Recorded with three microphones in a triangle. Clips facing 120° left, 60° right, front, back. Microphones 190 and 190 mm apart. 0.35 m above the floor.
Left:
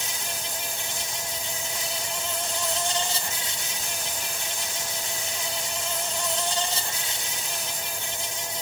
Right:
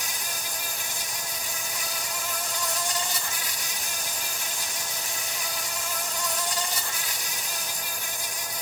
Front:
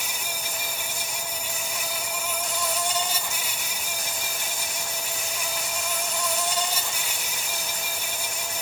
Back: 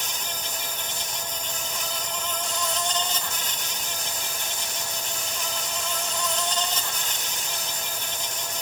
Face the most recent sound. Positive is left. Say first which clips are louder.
# left 2 dB, even
turn(degrees=75)